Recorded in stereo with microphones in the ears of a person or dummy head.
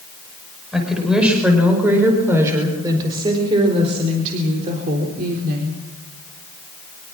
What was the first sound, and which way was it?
A woman speaking, centre (ahead or behind).